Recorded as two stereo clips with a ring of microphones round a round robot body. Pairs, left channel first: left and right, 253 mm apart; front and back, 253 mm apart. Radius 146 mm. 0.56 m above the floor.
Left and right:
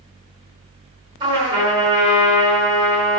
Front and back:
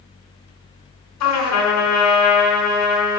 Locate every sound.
1.2 s a trumpet: 15° right, 5 m